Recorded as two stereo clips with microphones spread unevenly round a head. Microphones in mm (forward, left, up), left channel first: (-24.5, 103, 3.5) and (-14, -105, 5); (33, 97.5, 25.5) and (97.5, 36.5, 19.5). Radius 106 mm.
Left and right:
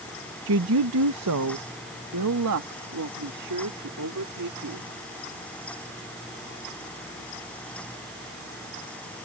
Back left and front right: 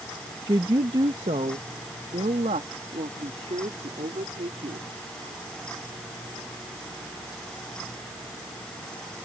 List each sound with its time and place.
0.5 s a woman speaking: 100° right; by 4.9 s 80° right